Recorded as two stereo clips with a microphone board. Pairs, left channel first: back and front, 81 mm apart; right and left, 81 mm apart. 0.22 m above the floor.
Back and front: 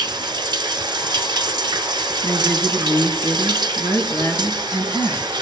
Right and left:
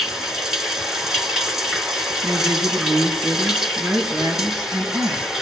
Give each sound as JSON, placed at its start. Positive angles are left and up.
{"t": 0.0, "sound": "running water", "azimuth_deg": 5, "distance_m": 0.8}
{"t": 2.2, "sound": "a woman speaking", "azimuth_deg": 140, "distance_m": 3.0}